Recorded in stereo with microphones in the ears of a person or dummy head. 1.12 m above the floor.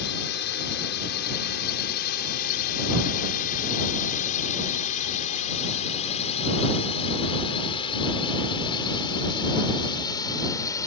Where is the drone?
60° left (ahead or behind); by 10.9 s 20° left (ahead or behind).